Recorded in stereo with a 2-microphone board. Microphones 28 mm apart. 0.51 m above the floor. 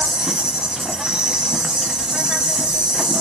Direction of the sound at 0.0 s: 25° right (ahead or behind).